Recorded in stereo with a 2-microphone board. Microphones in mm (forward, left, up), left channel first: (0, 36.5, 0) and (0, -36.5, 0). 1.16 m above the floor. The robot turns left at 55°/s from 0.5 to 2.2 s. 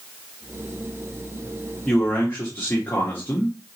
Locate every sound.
1.9 s a man speaking: 10° left (ahead or behind), 1.4 m; by 3.6 s 30° left (ahead or behind), 1.4 m